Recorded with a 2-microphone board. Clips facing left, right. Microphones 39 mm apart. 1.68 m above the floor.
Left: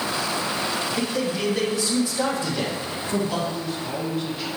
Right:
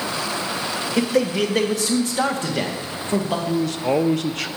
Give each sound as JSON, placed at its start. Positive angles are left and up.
{"t": 1.0, "sound": "a man speaking", "side_deg": -85, "distance_m": 1.7}
{"t": 3.5, "sound": "a man speaking", "side_deg": -80, "distance_m": 0.7}